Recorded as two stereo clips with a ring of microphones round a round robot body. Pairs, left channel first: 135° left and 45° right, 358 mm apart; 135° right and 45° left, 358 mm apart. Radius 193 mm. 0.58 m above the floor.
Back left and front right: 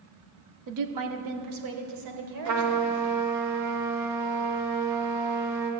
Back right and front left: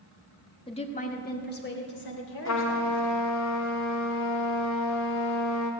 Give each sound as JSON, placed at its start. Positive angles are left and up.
{"t": 0.7, "sound": "a woman speaking", "azimuth_deg": -60, "distance_m": 1.4}
{"t": 2.5, "sound": "a trumpet", "azimuth_deg": -90, "distance_m": 1.6}